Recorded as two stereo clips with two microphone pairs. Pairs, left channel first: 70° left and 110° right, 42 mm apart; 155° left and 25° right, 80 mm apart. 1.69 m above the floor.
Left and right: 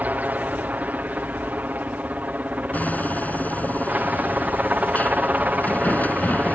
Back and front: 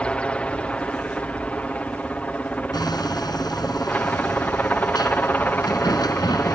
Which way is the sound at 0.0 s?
135° right.